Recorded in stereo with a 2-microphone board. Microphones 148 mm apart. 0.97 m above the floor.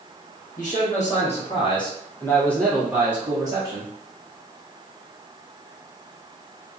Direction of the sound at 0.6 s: 60° left (ahead or behind).